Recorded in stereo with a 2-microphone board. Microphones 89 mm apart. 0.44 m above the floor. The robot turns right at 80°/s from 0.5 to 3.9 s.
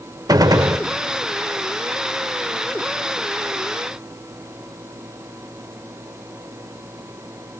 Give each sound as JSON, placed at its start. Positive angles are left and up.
{"t": 0.3, "sound": "a gunshot", "side_deg": -45, "distance_m": 0.8}